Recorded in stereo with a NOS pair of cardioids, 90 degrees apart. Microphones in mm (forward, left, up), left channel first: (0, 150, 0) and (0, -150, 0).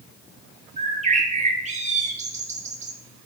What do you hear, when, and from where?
0.8 s a bird: 25° right, 2 m